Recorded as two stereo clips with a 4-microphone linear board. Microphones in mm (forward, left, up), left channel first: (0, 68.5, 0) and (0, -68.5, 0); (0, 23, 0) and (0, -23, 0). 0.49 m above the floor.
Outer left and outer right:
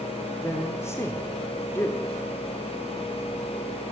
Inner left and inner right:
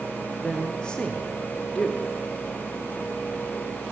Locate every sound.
0.4 s a man speaking: 20° left (ahead or behind), 1.3 m